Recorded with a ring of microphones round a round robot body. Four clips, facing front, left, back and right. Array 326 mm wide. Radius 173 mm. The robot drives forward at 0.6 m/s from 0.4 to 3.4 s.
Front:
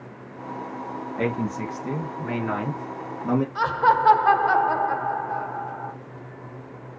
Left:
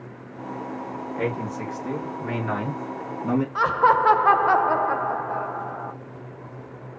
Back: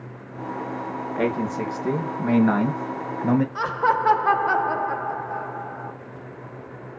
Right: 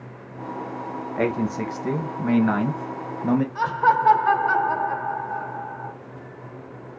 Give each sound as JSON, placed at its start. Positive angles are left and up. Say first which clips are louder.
{"t": 1.2, "sound": "a man speaking", "louder": "right 5 dB, back 2 dB", "azimuth_deg": -125, "distance_m": 2.5}
{"t": 3.5, "sound": "laughter", "louder": "left 4 dB, front 2 dB", "azimuth_deg": 100, "distance_m": 1.3}